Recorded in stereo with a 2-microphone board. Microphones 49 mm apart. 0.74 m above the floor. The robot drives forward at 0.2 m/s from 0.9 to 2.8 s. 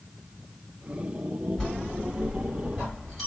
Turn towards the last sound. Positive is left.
turn(degrees=15)  # may be behind; listen again after turning